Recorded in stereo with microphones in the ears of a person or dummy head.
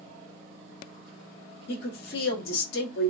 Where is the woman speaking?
60° left (ahead or behind), 1.2 m.